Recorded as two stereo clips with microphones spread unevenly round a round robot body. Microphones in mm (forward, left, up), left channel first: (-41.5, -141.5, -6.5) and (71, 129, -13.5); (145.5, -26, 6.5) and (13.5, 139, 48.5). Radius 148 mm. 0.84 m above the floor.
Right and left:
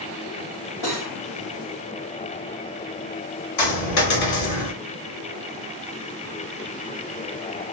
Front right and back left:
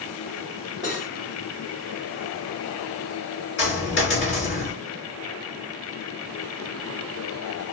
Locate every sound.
0.8 s cutlery clinking: 120° right, 1.6 m
3.6 s a dropped coin: 105° right, 1.9 m